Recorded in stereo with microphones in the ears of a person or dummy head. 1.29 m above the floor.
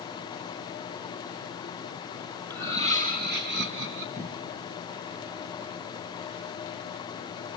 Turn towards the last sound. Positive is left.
turn(degrees=-10)  # may be behind; listen again after turning